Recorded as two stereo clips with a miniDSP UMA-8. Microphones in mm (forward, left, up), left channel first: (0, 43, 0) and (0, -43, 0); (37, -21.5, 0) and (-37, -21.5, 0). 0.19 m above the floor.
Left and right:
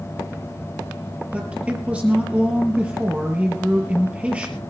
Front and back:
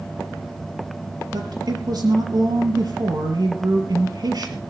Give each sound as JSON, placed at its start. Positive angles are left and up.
{"t": 1.3, "sound": "a woman speaking", "azimuth_deg": -165, "distance_m": 4.0}